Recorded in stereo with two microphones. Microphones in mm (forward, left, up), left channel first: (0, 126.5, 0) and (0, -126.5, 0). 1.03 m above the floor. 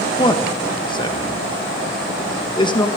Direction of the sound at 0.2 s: 15° left (ahead or behind).